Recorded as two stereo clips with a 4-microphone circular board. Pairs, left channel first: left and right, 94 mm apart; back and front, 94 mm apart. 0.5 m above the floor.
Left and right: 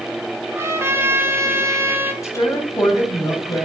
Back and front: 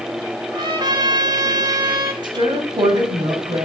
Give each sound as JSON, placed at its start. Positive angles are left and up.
{"t": 0.5, "sound": "a trumpet", "azimuth_deg": -30, "distance_m": 1.6}
{"t": 2.2, "sound": "a woman speaking", "azimuth_deg": 35, "distance_m": 2.5}